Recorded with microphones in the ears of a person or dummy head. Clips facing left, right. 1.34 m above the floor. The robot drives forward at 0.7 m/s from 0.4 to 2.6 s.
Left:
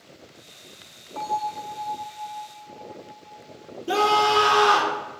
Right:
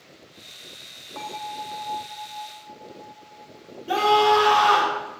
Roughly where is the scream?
Left.